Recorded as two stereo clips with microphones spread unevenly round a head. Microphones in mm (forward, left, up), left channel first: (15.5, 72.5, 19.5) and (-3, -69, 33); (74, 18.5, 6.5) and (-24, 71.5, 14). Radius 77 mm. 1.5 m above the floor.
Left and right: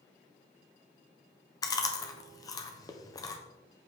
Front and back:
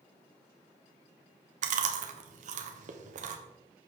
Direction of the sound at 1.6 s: 150° left.